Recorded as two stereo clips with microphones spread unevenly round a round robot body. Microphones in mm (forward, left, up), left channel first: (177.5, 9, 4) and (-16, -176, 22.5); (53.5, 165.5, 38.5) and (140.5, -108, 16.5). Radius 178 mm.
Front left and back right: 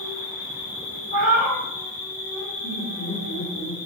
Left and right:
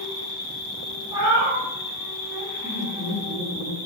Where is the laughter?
20° right, 1.0 m.